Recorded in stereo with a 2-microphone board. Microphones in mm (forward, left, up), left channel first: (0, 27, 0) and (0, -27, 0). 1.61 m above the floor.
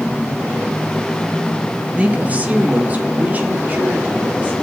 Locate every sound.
2.0 s a woman speaking: 25° right (ahead or behind), 1.8 m; by 4.5 s 35° right (ahead or behind), 4.5 m